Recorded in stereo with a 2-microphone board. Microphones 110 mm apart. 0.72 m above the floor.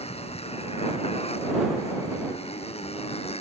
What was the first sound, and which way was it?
A motorcycle, 70° left (ahead or behind).